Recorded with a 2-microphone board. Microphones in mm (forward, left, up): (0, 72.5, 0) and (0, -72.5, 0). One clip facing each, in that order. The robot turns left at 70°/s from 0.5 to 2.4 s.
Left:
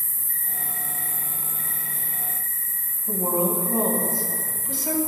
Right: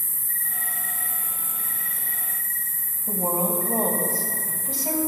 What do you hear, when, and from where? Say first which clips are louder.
0.0 s an insect: right 1 dB; 40° left, 2.5 m; by 5.1 s 95° right, 2.5 m
3.1 s a woman speaking: left 2 dB; 40° right (ahead or behind), 1.9 m